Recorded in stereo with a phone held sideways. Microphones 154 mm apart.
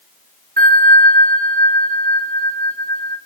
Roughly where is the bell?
Right.